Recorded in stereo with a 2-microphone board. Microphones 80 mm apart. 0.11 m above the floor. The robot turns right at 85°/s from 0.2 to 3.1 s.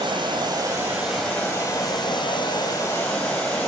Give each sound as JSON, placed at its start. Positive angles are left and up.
{"t": 0.0, "sound": "running water", "azimuth_deg": -80, "distance_m": 1.8}